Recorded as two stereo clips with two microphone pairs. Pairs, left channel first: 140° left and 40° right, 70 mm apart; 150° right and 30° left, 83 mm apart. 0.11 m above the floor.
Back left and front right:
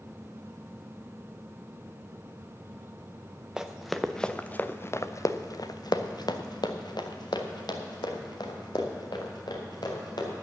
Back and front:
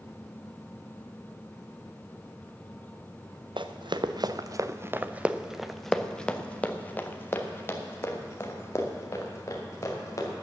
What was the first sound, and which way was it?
Running footsteps, 40° left.